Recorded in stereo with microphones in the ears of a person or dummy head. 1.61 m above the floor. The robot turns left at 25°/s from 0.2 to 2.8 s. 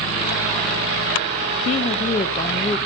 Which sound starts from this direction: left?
A woman speaking, at 1.6 s.